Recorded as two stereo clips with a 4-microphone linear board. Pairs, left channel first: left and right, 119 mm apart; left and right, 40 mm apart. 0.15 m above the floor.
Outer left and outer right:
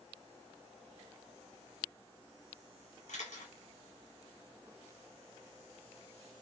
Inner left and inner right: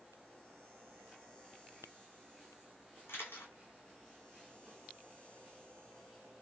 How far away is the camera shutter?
About 1.4 m.